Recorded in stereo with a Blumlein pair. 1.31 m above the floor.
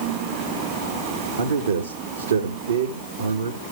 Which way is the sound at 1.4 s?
70° right.